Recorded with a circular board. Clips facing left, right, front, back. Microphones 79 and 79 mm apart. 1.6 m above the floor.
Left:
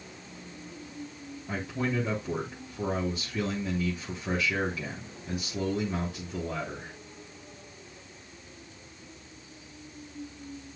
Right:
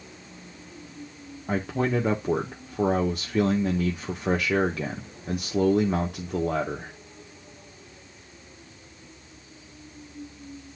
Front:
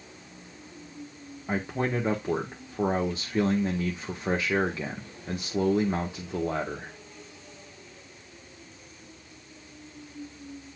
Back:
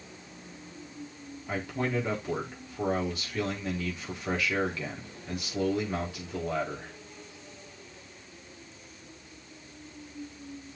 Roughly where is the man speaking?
Ahead right.